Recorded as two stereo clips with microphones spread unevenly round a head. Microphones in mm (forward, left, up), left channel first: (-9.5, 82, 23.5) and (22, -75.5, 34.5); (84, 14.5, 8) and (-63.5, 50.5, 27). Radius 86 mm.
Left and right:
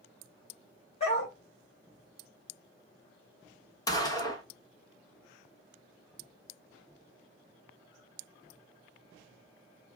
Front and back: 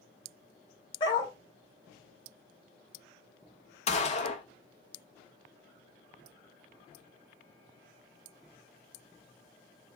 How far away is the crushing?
I don't hear crushing.